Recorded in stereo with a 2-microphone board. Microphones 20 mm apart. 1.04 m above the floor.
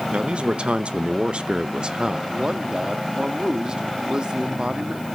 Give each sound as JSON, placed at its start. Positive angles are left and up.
{"t": 0.1, "sound": "a man speaking", "side_deg": -65, "distance_m": 1.3}
{"t": 2.3, "sound": "a man speaking", "side_deg": -45, "distance_m": 1.5}